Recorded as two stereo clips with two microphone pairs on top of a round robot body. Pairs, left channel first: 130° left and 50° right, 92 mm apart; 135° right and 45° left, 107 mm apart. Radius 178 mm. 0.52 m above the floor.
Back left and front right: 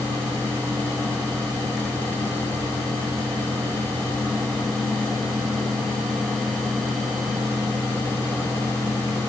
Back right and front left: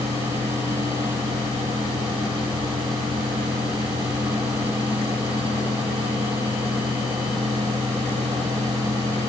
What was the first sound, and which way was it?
Only background noise.